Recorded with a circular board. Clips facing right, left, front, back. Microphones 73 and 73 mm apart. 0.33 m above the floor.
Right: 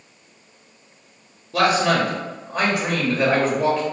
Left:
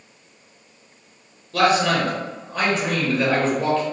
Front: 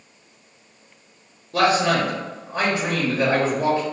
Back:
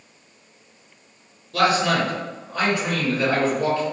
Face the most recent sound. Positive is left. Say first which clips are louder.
# even, front 1 dB
turn(degrees=-30)